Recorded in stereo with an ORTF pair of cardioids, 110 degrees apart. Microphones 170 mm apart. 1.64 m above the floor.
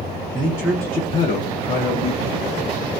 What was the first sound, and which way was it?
A man speaking, 25° right.